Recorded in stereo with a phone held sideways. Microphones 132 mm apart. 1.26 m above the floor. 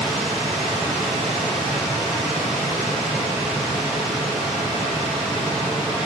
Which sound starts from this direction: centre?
A machine running, at 0.0 s.